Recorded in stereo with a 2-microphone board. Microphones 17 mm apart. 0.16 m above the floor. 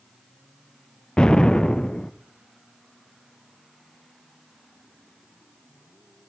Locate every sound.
1.2 s an explosion: 65° left (ahead or behind), 0.9 m